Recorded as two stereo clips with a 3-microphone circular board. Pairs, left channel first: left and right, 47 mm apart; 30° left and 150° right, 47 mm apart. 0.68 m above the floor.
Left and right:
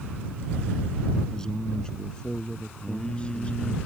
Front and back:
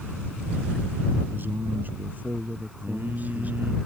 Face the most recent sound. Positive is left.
turn(degrees=165)